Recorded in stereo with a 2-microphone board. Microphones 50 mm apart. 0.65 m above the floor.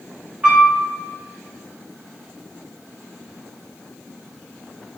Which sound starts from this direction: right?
A piano, at 0.4 s.